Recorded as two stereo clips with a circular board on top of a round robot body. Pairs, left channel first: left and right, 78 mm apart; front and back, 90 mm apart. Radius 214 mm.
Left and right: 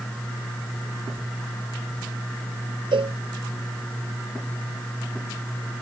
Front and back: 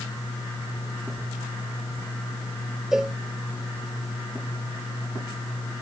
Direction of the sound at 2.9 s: 95° right.